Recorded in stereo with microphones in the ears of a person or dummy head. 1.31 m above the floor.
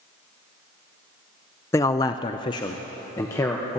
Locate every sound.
1.7 s a man speaking: 15° left (ahead or behind), 0.6 m; by 3.8 s 10° left (ahead or behind), 1.2 m